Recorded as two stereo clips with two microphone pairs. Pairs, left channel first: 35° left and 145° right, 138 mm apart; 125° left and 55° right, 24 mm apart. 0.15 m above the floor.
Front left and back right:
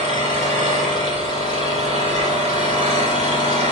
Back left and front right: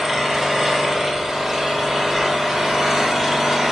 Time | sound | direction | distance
0.0 | an engine running | 125° right | 1.1 m